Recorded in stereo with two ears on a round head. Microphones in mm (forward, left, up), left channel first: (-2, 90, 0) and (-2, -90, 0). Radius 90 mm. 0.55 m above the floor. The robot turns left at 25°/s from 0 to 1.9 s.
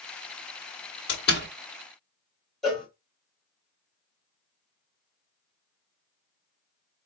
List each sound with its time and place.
1.1 s a door slam: 55° left (ahead or behind), 1.2 m
2.6 s a cowbell: centre (ahead or behind), 1.2 m